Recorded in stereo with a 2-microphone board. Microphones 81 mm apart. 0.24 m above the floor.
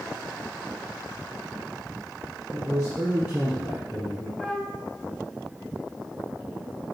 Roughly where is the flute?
Centre.